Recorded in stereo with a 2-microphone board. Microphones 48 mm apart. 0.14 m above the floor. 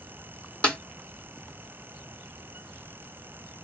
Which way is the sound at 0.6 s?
25° left (ahead or behind).